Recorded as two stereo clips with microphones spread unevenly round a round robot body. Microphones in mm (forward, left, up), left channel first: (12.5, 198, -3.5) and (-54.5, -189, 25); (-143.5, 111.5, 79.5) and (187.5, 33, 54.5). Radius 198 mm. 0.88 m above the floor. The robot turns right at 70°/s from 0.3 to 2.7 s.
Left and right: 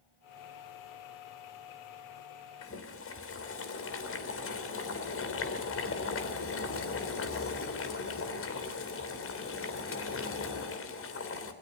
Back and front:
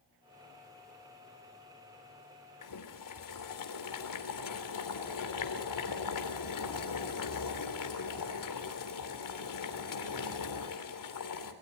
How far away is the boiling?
About 3.5 m.